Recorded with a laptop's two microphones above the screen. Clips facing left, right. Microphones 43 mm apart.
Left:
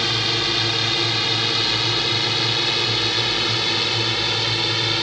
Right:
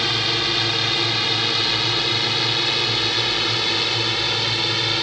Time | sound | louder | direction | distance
0.0 | a drone | even | 5° right (ahead or behind) | ?